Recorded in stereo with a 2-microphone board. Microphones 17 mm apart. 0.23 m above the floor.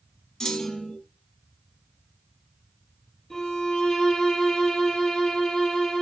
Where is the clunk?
55° left (ahead or behind), 0.9 m.